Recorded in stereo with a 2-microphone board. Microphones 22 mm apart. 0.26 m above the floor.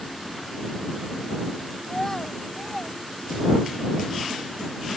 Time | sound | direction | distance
1.8 | a child speaking | 25° left (ahead or behind) | ?